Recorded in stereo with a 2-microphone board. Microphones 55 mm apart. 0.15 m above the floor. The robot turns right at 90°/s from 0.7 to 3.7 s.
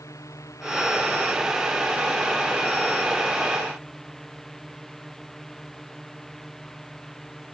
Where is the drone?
95° left; by 7.5 s 5° left.